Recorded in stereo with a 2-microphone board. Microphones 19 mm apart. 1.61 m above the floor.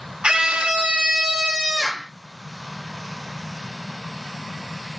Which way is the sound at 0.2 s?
60° right (ahead or behind).